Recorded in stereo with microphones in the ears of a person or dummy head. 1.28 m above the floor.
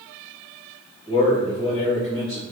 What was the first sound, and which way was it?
A man speaking, 10° left (ahead or behind).